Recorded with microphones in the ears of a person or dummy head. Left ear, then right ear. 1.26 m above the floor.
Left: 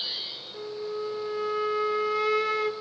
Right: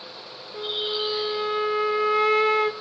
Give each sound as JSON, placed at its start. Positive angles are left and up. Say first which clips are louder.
{"t": 0.5, "sound": "a flute", "louder": "right 10 dB", "side_deg": -30, "distance_m": 0.9}